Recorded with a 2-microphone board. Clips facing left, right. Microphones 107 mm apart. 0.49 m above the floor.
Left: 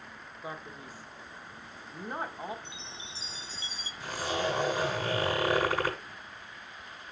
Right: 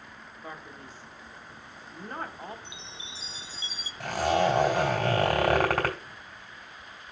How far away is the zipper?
About 2.5 m.